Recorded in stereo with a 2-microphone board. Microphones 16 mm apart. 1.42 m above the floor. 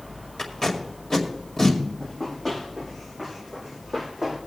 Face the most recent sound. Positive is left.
turn(degrees=-20)  # may be behind; listen again after turning